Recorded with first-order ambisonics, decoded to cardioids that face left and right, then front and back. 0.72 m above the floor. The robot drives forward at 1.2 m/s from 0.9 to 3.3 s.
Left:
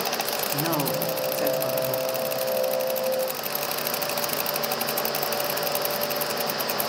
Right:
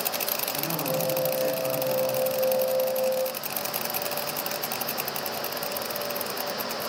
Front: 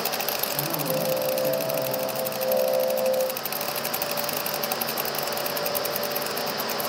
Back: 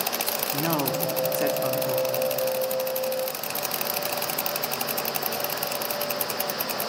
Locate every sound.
0.5 s a man speaking: 135° left, 1.4 m; by 2.1 s 160° left, 2.5 m